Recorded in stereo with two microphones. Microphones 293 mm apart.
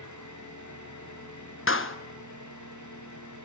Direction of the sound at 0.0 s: 80° left.